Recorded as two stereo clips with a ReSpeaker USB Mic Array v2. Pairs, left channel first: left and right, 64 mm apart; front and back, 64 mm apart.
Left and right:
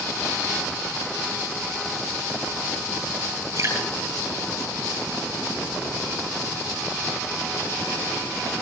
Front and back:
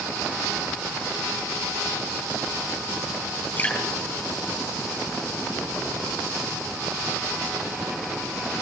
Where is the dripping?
60° right, 5 m.